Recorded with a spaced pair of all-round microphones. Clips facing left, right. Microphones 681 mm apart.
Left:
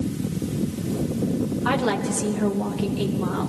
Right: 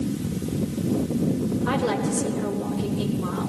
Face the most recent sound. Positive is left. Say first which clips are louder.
# even
turn(degrees=85)